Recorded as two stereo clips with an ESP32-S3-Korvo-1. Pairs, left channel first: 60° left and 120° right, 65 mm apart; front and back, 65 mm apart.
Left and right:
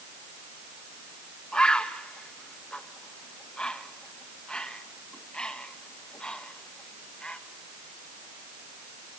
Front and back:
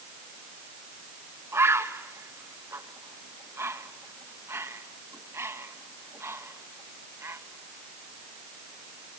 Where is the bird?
135° left, 1.3 m.